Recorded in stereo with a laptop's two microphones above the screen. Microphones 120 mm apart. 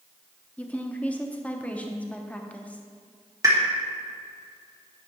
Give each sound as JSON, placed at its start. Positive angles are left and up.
{"t": 0.6, "sound": "a woman speaking", "side_deg": 10, "distance_m": 0.7}
{"t": 3.4, "sound": "a pop", "side_deg": -25, "distance_m": 1.3}